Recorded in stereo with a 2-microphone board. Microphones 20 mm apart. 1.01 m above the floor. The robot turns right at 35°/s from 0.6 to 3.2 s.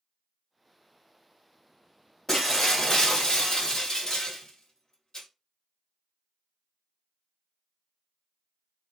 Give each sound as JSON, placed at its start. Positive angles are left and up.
{"t": 2.3, "sound": "breaking glass", "azimuth_deg": 15, "distance_m": 1.4}